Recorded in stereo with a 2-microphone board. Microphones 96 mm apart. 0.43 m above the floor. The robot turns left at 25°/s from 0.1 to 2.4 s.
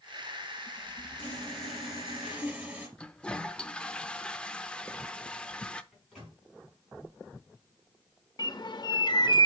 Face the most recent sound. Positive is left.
turn(degrees=50)  # may be behind; listen again after turning